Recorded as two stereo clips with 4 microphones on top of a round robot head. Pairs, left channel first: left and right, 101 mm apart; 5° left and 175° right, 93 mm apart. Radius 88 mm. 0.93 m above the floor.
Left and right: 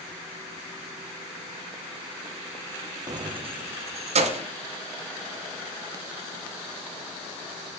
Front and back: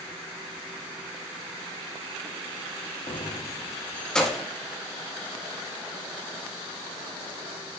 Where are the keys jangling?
35° right, 0.7 m; by 4.5 s 85° right, 1.2 m.